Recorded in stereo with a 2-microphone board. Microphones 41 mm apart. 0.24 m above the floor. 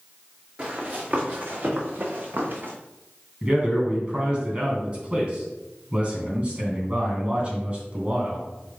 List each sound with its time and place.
0.6 s running footsteps: 40° right (ahead or behind), 3 m; by 2.7 s 60° right (ahead or behind), 2 m
3.4 s a man speaking: 25° right (ahead or behind), 2.5 m